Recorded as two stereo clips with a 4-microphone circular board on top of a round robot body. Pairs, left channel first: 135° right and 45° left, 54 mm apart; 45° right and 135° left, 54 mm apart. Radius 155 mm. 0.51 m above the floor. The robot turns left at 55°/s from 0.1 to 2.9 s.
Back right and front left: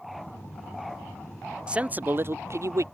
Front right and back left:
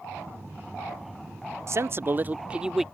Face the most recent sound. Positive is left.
turn(degrees=45)